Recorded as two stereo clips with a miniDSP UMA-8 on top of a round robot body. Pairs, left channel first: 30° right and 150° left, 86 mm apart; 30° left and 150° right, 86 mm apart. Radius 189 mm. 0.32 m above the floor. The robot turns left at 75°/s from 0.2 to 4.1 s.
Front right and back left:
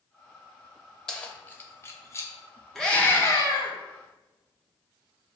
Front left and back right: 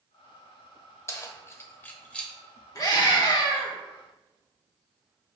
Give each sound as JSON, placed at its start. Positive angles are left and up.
{"t": 1.1, "sound": "keys jangling", "azimuth_deg": 45, "distance_m": 1.0}
{"t": 2.8, "sound": "a scream", "azimuth_deg": 55, "distance_m": 1.8}